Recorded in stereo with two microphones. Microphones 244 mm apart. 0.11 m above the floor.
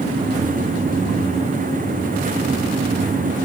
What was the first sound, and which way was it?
Only background noise.